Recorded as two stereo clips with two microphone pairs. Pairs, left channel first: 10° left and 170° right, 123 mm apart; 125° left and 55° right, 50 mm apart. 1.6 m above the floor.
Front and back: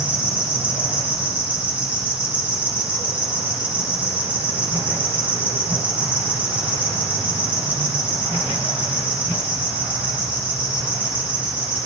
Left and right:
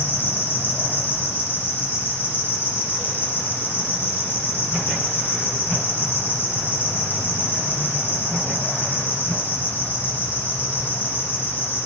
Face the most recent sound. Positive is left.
turn(degrees=120)